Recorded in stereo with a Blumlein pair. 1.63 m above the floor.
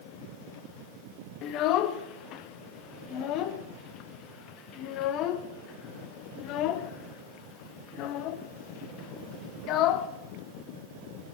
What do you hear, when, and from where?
1.4 s a child speaking: 35° left, 1.1 m